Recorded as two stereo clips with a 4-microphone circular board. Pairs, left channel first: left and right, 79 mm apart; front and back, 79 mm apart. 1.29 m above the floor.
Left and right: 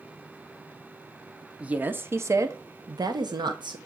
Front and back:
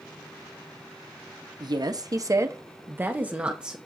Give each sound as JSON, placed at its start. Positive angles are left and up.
{"t": 1.6, "sound": "a woman speaking", "azimuth_deg": -165, "distance_m": 1.0}